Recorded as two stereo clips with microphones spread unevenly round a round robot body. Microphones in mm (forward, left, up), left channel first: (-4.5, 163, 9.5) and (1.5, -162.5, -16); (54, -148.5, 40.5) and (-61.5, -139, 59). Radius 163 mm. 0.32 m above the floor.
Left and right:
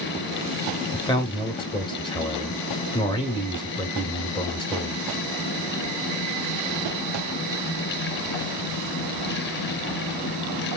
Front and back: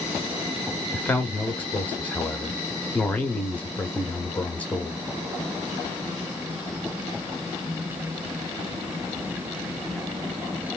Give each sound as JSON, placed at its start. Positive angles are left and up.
{"t": 0.9, "sound": "a man speaking", "azimuth_deg": 25, "distance_m": 0.9}